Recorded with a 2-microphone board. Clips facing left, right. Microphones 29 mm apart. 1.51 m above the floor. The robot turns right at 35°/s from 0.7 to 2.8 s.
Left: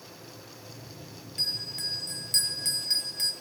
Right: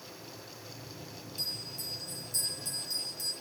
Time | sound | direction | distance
1.4 | a bell | 60° left | 0.7 m